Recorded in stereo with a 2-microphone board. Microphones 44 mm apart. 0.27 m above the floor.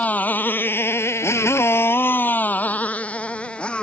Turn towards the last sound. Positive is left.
turn(degrees=20)  # may be behind; listen again after turning